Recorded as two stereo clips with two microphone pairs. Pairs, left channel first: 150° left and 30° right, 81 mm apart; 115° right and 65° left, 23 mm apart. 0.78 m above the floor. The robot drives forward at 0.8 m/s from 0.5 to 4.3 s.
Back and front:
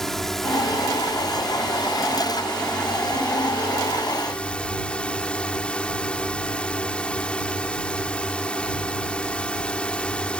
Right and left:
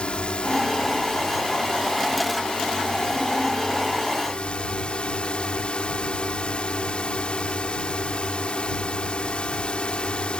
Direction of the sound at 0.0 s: 125° right.